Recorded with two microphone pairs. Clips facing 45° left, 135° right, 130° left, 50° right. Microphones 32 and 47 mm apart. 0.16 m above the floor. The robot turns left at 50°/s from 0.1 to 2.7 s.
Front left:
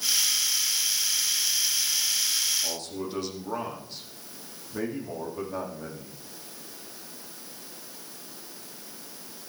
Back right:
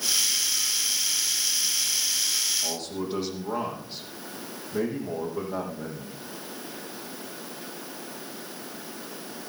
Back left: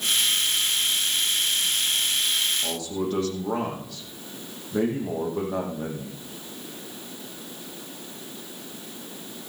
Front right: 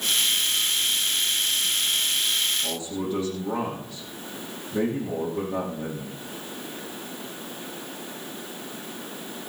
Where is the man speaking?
165° left, 5.5 m; by 6.2 s 160° left, 5.5 m.